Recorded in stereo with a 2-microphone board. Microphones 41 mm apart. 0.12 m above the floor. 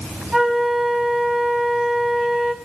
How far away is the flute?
About 5 m.